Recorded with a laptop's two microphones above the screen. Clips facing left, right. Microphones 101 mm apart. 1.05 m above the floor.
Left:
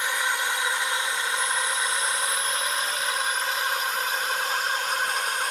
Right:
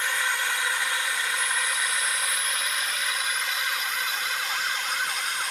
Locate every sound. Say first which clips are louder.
0.0 s a drone: left 1 dB; 15° left (ahead or behind); by 5.5 s 45° left (ahead or behind)